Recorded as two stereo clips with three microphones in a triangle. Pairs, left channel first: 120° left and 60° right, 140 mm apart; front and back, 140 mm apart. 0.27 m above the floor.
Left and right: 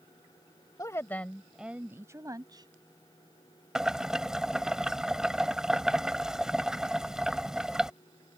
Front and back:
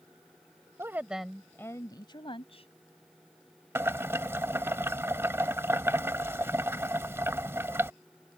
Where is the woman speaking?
140° left; by 2.7 s 15° right.